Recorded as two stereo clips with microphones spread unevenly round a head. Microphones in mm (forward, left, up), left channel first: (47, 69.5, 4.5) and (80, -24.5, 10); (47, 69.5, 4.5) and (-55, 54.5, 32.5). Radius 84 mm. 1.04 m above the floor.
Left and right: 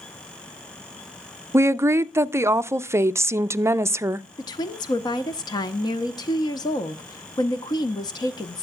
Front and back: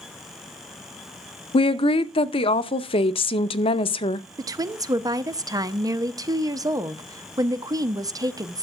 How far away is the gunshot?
I don't hear a gunshot.